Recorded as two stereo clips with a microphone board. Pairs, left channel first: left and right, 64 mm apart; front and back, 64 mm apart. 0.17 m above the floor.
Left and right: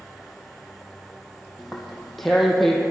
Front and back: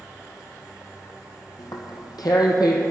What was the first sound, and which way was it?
Tearing paper, straight ahead.